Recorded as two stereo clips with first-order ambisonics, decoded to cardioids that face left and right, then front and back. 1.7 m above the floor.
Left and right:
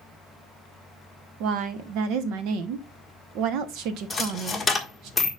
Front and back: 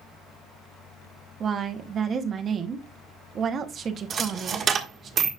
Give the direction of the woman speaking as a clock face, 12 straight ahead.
4 o'clock.